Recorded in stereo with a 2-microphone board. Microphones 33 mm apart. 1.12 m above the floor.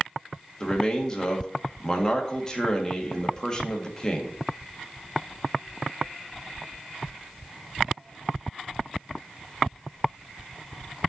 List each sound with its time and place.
0.6 s a man speaking: 20° left (ahead or behind), 1.9 m